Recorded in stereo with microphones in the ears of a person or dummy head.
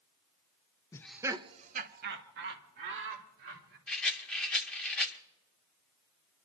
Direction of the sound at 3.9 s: 5° left (ahead or behind).